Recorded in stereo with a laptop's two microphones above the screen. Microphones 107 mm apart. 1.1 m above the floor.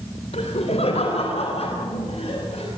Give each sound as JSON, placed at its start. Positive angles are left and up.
{"t": 0.3, "sound": "laughter", "side_deg": 80, "distance_m": 3.0}